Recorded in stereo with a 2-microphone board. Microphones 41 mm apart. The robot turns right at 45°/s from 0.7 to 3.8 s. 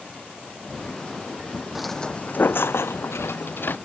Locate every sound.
1.8 s footsteps: 5° right (ahead or behind); by 3.8 s 45° left (ahead or behind)